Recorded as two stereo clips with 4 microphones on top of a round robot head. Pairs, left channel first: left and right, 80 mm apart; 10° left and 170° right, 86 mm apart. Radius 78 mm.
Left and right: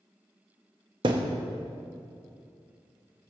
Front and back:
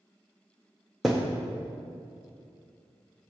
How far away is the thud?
About 0.8 m.